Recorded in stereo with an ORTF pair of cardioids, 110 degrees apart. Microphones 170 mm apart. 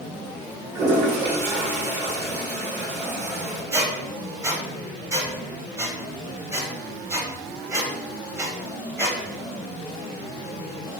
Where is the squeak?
20° right, 1.0 m.